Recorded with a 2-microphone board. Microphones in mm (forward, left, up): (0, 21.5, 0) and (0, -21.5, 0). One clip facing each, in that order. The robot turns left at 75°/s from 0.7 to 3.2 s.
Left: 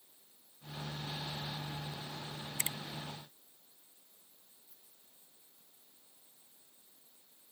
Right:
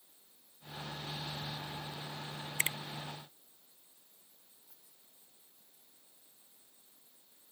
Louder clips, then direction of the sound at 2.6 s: Right 7 dB; 45° right (ahead or behind).